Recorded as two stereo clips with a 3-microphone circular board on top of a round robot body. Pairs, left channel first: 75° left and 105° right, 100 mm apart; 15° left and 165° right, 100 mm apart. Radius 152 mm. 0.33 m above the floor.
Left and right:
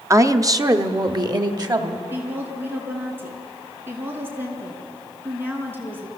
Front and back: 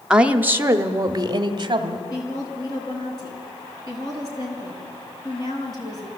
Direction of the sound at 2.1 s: 35° right.